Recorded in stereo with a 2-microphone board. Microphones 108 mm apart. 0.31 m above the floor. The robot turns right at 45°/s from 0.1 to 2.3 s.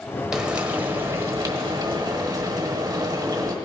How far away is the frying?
About 1.3 m.